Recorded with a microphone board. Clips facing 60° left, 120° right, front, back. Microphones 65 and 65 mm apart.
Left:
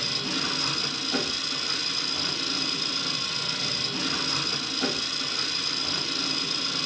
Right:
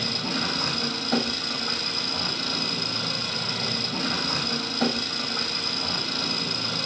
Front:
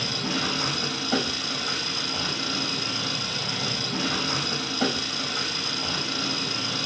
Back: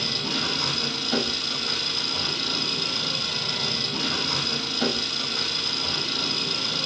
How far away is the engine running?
About 4 m.